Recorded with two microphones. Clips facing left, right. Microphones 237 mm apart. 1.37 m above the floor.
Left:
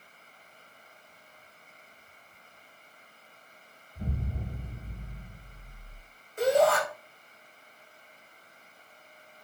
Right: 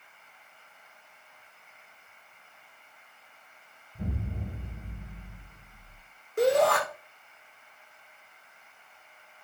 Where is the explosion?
60° right (ahead or behind), 5 m.